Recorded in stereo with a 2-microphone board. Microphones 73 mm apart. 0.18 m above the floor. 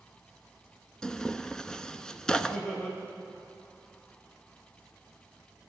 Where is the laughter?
15° left (ahead or behind), 5 m.